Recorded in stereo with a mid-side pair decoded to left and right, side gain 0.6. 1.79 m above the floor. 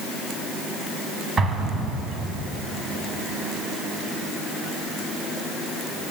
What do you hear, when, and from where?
1.4 s an explosion: 35° right, 1.3 m